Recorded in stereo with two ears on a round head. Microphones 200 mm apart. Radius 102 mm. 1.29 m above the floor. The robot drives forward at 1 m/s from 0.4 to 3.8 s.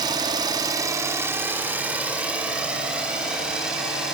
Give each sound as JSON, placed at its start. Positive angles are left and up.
{"t": 0.0, "sound": "an engine running", "side_deg": -20, "distance_m": 0.8}